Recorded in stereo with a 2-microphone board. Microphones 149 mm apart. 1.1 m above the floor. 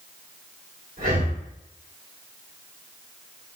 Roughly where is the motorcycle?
I don't hear a motorcycle.